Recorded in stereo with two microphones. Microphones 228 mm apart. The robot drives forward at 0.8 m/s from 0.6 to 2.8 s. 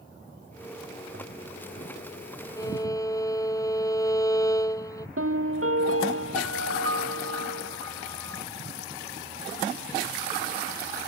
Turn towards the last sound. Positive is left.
turn(degrees=-75)  # may be behind; listen again after turning